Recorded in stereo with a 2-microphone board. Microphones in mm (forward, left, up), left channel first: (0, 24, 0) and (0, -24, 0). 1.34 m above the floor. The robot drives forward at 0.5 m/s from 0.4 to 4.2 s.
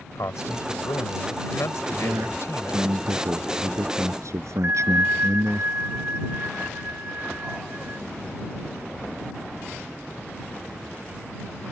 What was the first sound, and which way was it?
A man speaking, 80° left.